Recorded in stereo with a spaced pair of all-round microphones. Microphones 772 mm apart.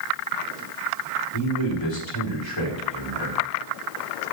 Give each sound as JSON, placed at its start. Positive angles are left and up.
{"t": 1.3, "sound": "a man speaking", "side_deg": 35, "distance_m": 4.5}